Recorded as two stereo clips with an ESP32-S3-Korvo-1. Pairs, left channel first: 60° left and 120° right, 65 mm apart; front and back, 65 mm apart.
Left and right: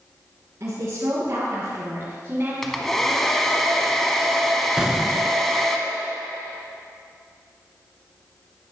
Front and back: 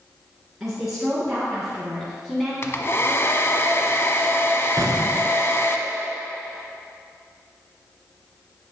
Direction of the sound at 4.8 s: 165° left.